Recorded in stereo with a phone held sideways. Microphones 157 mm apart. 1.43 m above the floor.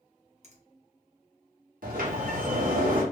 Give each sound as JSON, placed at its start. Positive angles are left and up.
{"t": 0.4, "sound": "a finger snap", "side_deg": -50, "distance_m": 0.7}
{"t": 1.8, "sound": "a sliding door", "side_deg": -70, "distance_m": 0.8}